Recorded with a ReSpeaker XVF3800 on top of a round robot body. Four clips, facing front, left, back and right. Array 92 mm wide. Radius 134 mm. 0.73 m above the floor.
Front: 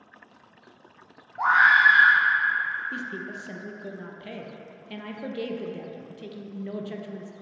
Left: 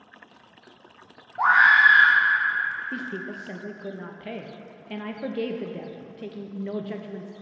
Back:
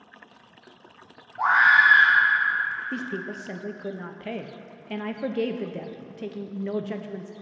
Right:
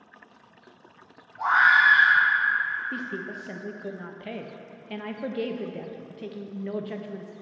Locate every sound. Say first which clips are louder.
1.4 s a scream: left 2 dB, even; 80° left, 1.5 m
2.9 s a woman speaking: left 1 dB, back 2 dB; 175° left, 0.7 m